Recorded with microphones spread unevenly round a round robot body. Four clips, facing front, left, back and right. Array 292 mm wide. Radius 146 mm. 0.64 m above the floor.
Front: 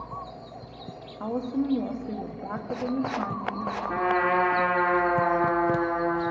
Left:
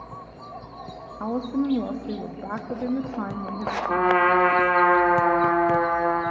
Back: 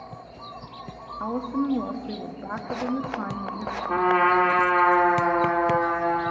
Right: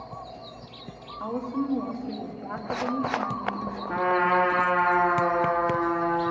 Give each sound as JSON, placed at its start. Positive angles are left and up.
{"t": 1.2, "sound": "a woman speaking", "azimuth_deg": 105, "distance_m": 0.8}
{"t": 3.9, "sound": "a trumpet", "azimuth_deg": 110, "distance_m": 1.4}